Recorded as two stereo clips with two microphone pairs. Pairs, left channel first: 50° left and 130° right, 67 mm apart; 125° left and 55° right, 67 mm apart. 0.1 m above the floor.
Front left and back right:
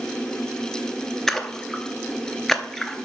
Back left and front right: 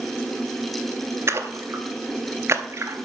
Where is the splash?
40° right, 0.6 m.